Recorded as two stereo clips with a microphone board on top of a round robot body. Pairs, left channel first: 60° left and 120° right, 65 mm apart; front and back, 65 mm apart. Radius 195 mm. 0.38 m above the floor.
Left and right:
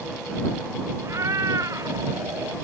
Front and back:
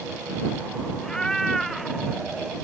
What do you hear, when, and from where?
1.0 s a cat meowing: 80° right; by 2.5 s 100° right